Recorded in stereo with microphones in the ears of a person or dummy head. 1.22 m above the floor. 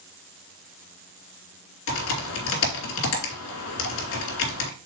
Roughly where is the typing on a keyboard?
Left.